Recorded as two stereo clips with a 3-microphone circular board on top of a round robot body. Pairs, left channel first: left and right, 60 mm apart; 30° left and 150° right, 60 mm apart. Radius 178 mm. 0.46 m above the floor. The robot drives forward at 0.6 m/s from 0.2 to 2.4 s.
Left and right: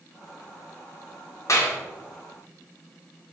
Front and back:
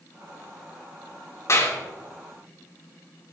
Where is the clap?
60° left, 2 m; by 1.8 s 65° left, 2.0 m.